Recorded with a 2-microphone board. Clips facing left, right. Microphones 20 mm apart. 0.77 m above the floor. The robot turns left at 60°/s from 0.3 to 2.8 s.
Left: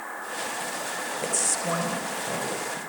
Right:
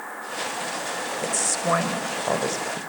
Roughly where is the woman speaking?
Ahead.